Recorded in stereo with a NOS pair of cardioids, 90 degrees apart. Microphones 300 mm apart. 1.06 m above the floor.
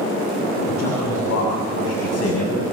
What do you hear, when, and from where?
0.7 s a man speaking: 60° left, 6 m; by 2.6 s 55° left, 7.5 m